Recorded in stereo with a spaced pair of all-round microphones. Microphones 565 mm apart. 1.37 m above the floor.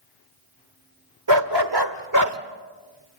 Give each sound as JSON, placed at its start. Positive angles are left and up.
{"t": 1.3, "sound": "a dog barking", "side_deg": -50, "distance_m": 1.6}